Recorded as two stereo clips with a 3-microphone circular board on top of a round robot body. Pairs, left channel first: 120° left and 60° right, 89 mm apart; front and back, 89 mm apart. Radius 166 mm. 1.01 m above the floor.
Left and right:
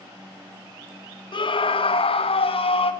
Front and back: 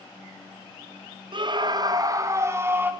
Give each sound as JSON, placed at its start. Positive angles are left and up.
{"t": 1.3, "sound": "a scream", "azimuth_deg": 150, "distance_m": 1.4}